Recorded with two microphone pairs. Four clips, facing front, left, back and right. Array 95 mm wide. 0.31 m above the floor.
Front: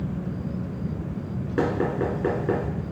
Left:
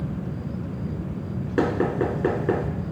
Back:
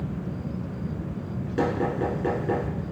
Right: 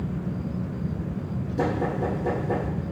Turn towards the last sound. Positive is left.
turn(degrees=65)